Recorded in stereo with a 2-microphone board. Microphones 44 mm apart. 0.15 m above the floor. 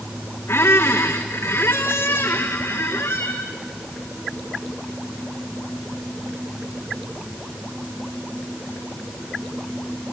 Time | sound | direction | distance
0.5 | a squeak | 80° left | 1.5 m